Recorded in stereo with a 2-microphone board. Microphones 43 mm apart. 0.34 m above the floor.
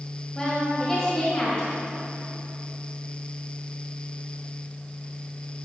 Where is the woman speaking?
20° left (ahead or behind), 1.9 m.